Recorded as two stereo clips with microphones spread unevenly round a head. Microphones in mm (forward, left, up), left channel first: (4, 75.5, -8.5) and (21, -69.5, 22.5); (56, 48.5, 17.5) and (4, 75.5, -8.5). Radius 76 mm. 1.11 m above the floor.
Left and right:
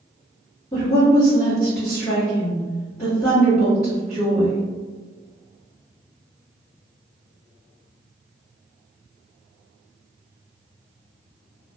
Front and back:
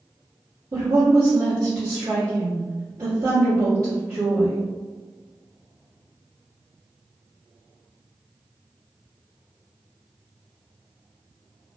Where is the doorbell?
I don't hear a doorbell.